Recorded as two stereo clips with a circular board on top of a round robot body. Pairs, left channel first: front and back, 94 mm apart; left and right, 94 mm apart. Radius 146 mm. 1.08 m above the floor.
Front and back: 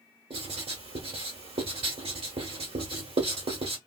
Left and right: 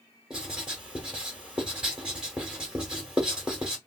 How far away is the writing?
About 1.3 m.